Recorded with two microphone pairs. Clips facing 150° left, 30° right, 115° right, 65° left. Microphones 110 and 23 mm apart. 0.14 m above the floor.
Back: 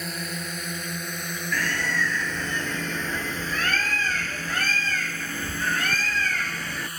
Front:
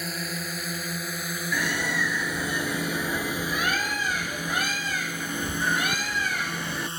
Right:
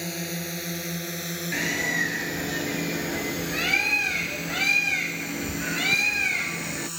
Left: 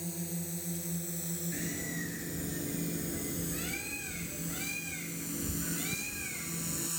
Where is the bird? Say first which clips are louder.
Even, right 17 dB; 105° right.